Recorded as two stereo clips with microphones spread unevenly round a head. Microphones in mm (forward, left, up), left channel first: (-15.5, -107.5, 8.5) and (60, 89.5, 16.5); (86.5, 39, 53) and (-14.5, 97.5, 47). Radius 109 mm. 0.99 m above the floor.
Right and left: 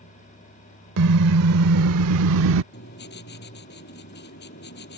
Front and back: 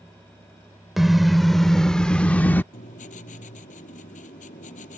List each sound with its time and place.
1.0 s a car horn: 60° left; by 2.6 s 45° left
2.7 s writing: 70° right